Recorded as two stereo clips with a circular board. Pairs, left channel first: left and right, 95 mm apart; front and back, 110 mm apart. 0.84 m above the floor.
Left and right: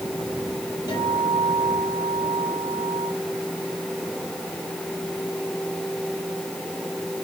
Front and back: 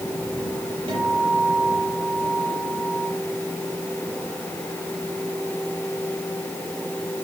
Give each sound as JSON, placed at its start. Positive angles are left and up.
{"t": 0.9, "sound": "a guitar", "azimuth_deg": 135, "distance_m": 9.0}